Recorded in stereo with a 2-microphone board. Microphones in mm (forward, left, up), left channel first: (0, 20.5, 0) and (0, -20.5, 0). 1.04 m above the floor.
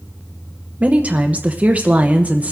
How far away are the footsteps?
No footsteps in this recording.